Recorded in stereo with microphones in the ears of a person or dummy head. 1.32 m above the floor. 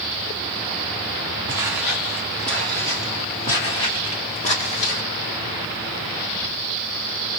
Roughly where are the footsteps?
Centre.